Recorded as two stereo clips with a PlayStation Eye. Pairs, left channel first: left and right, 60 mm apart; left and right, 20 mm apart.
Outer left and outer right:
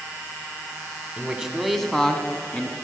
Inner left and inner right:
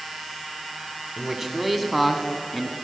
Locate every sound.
1.2 s a man speaking: 15° right (ahead or behind), 1.4 m; by 2.7 s 20° left (ahead or behind), 1.8 m